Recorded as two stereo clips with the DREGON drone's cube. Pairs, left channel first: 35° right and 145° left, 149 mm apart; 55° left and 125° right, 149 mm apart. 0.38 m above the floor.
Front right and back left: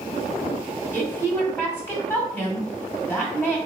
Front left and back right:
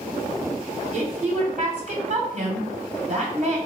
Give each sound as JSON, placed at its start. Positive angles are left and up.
{"t": 0.9, "sound": "a woman speaking", "azimuth_deg": -105, "distance_m": 1.6}